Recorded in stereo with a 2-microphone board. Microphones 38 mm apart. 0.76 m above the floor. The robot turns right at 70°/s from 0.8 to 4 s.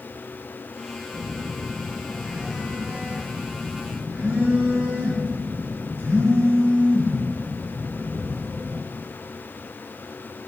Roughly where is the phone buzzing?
Left.